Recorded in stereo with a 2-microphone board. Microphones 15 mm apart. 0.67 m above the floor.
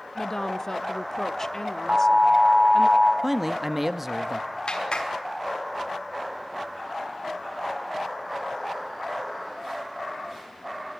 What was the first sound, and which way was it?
A woman speaking, 25° left (ahead or behind).